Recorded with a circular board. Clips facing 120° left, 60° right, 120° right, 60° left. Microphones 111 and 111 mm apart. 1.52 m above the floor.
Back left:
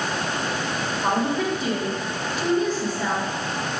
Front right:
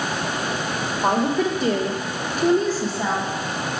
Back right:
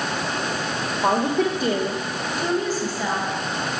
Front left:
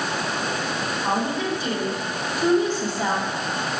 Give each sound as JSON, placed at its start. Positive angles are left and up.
{"t": 1.0, "sound": "a woman speaking", "azimuth_deg": -105, "distance_m": 0.8}